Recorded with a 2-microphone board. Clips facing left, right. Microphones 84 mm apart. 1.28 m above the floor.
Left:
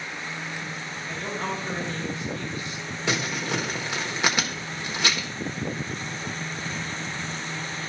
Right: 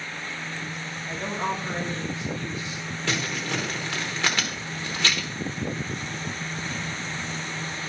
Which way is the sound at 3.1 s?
15° left (ahead or behind).